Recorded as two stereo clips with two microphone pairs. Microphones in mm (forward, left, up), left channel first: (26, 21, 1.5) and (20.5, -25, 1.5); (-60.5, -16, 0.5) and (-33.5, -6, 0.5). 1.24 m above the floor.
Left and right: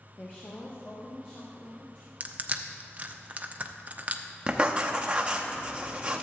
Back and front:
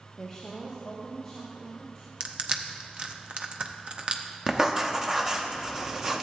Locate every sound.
0.2 s a woman speaking: 120° left, 0.9 m; by 2.1 s 125° left, 3 m
2.2 s crushing: 40° right, 0.6 m
4.5 s writing: 55° right, 0.7 m